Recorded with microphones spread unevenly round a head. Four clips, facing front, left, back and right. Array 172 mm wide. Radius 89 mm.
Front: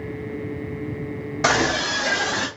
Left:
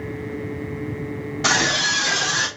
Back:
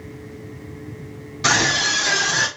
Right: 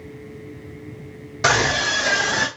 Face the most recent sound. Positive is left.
turn(degrees=-45)